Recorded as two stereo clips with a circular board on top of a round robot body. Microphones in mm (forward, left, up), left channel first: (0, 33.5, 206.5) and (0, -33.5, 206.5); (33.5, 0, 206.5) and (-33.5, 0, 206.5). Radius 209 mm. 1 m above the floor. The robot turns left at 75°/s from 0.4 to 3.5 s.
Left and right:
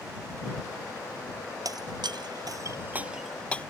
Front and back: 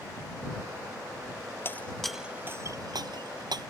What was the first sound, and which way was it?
Breaking glass, 60° right.